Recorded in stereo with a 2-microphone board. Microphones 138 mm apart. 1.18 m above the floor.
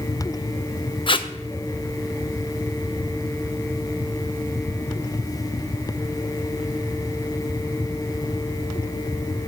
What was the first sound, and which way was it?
Tape being pulled, 40° left (ahead or behind).